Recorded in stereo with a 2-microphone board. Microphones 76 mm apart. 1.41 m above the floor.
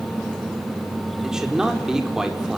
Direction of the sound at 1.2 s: 5° right (ahead or behind).